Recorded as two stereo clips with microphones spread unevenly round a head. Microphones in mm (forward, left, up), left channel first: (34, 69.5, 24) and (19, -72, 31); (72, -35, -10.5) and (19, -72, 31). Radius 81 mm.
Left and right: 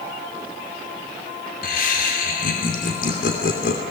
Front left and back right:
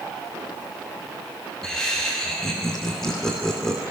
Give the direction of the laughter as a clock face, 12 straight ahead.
8 o'clock.